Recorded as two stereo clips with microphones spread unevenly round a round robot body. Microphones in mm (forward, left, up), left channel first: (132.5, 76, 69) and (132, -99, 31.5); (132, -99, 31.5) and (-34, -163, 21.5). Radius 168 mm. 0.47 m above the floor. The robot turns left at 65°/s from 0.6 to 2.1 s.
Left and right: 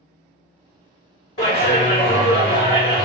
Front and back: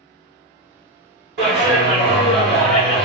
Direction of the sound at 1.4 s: 160° left.